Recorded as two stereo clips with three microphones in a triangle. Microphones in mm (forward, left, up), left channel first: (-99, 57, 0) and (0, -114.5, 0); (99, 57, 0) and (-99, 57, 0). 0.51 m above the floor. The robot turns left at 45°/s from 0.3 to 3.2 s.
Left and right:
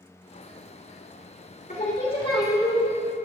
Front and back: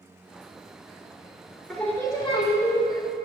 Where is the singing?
90° left, 1.5 m; by 2.9 s 35° left, 1.5 m.